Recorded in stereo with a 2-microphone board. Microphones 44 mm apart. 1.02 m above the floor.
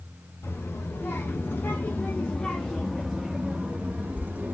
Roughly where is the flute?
I don't hear a flute.